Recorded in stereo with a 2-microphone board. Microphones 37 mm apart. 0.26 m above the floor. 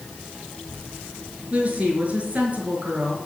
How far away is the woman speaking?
About 4.5 m.